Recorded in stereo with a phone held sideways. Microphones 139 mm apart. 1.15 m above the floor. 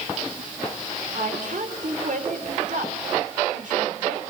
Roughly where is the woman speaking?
Right.